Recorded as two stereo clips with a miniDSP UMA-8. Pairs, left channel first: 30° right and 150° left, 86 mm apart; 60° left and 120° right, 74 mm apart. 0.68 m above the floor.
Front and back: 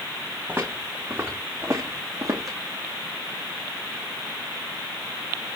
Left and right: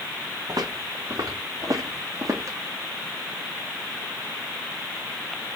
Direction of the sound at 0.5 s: 145° right.